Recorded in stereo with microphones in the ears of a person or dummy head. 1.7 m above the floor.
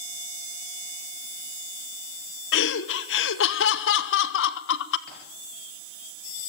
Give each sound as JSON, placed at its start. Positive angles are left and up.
{"t": 2.5, "sound": "laughter", "side_deg": 70, "distance_m": 1.2}
{"t": 5.1, "sound": "tapping", "side_deg": 50, "distance_m": 5.5}